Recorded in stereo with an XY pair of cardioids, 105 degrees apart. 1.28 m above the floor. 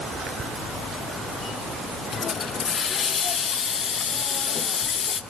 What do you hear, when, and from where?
2.1 s a hiss: 45° left, 0.9 m